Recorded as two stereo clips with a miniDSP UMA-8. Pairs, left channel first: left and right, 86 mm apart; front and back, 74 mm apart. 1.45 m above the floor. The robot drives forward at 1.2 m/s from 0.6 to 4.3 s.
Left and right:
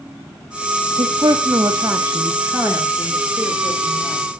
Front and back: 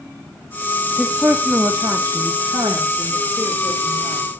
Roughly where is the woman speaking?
Right.